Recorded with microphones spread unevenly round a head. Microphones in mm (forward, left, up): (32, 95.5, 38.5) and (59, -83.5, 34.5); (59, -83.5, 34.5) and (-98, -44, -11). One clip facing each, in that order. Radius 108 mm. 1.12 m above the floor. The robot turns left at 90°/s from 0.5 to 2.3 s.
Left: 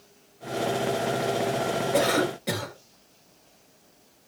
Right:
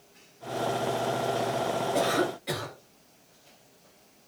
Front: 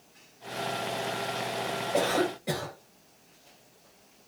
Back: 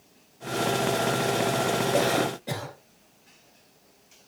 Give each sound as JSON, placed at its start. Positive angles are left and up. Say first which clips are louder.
{"t": 1.9, "sound": "a cough", "louder": "left 4 dB, back 2 dB", "azimuth_deg": 100, "distance_m": 4.5}